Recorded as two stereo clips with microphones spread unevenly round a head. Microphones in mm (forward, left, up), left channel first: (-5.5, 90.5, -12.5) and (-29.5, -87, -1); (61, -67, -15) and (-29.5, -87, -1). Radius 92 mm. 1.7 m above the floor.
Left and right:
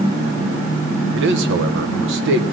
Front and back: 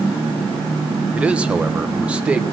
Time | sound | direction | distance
1.1 | a man speaking | 95° right | 1.2 m